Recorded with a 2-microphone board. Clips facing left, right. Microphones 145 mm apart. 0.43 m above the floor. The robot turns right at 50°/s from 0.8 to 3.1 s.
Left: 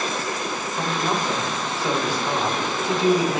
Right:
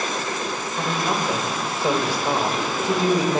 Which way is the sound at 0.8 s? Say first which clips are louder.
Even; 175° left.